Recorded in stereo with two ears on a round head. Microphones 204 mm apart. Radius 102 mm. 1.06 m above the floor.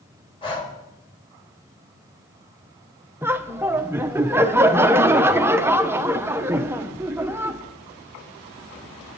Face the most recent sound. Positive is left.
turn(degrees=-10)  # may be behind; listen again after turning